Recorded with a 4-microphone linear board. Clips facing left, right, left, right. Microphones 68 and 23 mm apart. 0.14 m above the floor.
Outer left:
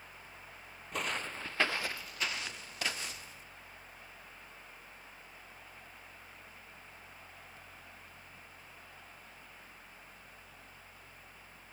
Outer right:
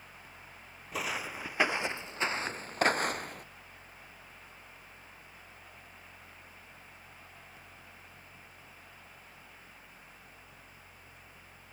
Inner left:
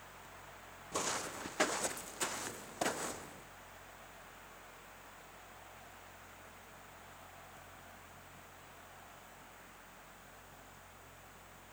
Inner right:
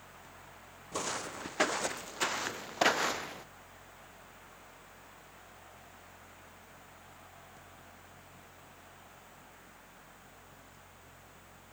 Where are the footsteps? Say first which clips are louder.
Outer right 1 dB, inner right 1 dB; centre (ahead or behind); by 3.5 s 65° right (ahead or behind).